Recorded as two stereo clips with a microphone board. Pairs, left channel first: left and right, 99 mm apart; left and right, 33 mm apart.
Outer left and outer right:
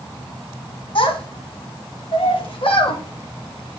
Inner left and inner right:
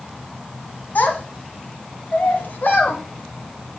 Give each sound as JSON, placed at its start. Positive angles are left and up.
{"t": 0.9, "sound": "a child speaking", "side_deg": 65, "distance_m": 1.9}